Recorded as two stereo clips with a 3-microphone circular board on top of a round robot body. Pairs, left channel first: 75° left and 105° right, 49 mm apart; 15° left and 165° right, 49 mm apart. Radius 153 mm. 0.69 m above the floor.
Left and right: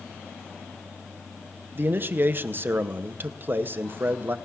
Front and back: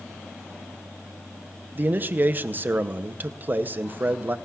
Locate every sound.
1.8 s a man speaking: 130° right, 0.9 m